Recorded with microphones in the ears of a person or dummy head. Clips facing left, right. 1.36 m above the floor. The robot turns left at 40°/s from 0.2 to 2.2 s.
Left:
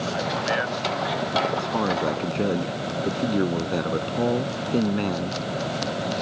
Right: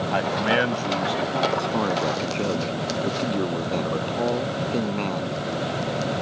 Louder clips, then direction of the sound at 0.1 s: Right 6 dB; 110° right.